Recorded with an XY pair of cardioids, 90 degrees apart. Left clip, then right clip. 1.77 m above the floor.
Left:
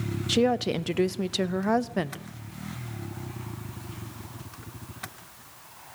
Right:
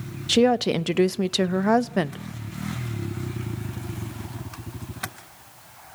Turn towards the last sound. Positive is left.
turn(degrees=-35)